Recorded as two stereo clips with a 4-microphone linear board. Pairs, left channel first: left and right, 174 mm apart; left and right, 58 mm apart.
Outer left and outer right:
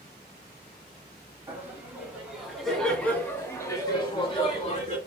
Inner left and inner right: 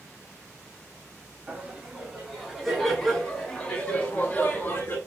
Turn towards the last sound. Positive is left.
turn(degrees=40)  # may be behind; listen again after turning